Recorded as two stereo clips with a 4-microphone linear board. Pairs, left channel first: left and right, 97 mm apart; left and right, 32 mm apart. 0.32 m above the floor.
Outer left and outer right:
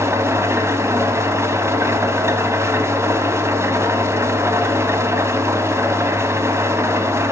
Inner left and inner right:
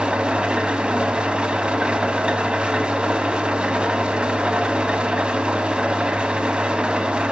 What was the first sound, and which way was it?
An engine running, 30° right (ahead or behind).